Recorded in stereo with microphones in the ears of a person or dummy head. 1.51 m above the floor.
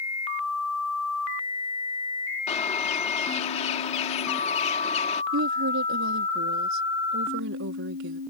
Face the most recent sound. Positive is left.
turn(degrees=-75)  # may be behind; listen again after turning